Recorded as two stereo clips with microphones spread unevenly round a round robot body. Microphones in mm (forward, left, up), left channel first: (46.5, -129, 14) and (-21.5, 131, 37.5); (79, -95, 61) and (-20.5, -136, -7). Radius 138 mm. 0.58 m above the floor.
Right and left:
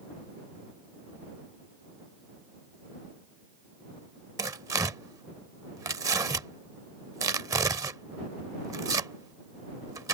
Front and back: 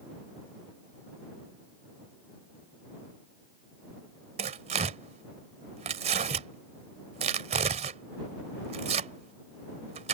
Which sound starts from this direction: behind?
Tearing paper, at 4.4 s.